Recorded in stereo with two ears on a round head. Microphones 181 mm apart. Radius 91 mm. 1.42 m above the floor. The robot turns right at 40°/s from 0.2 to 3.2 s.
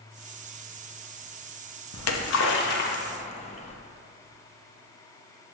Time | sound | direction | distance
1.9 | a splash | 85° left | 1.0 m